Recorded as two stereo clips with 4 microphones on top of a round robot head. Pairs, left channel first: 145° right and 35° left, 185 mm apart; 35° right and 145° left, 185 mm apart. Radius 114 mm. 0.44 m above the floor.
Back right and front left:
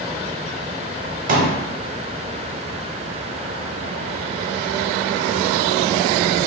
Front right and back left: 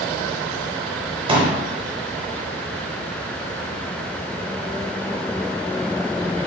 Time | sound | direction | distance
1.3 | a pop | 80° left | 0.7 m